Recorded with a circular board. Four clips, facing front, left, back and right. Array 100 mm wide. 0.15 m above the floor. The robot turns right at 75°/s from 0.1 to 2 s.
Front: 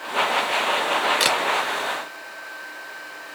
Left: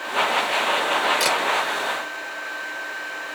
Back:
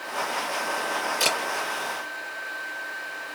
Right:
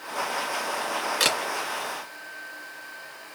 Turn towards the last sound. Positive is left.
turn(degrees=35)